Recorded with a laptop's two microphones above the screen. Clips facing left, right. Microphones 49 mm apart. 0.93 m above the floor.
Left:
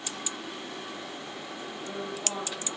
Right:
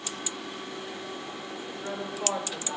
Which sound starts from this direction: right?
A woman speaking, at 1.7 s.